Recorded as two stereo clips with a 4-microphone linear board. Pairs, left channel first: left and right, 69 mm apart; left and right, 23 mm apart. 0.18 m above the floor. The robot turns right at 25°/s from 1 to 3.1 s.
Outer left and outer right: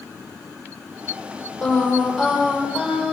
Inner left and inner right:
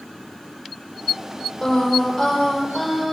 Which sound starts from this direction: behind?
Singing, at 1.6 s.